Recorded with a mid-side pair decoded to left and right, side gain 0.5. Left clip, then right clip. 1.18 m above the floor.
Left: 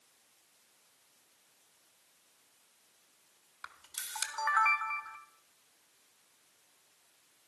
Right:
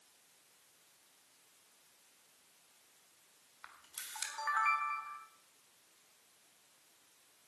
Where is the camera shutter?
40° left, 1.8 m.